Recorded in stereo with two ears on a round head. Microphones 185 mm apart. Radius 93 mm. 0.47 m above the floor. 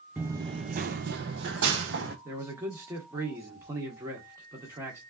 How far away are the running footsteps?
About 0.5 m.